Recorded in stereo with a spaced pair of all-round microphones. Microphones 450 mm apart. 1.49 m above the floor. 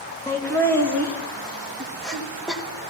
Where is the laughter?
5° left (ahead or behind), 3 m; by 2.9 s 5° right (ahead or behind), 1.9 m.